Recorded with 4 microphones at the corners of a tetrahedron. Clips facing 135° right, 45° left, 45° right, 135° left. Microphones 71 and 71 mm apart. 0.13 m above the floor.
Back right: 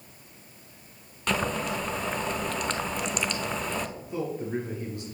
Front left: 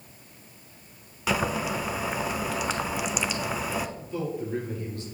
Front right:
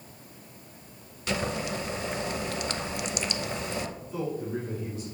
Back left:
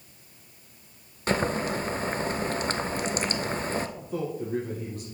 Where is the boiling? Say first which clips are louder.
Front left 1 dB, back left 4 dB; 125° left, 0.6 m.